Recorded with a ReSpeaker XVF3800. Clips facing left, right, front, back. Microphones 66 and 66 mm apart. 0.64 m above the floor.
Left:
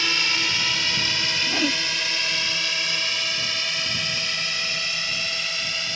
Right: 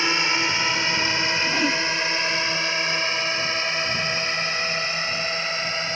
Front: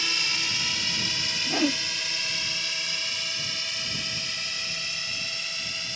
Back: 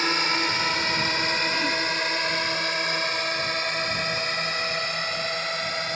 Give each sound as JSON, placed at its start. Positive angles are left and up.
{"t": 0.0, "sound": "a drone", "azimuth_deg": -150}
{"t": 1.5, "sound": "a whoosh", "azimuth_deg": 10}